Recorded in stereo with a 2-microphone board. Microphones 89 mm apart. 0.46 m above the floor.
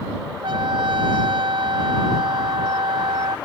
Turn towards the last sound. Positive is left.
turn(degrees=-70)  # may be behind; listen again after turning